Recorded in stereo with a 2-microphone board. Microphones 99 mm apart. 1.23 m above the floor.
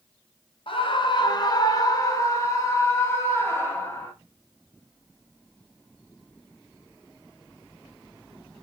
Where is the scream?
60° left (ahead or behind), 1.1 m; by 4.1 s 25° left (ahead or behind), 3 m.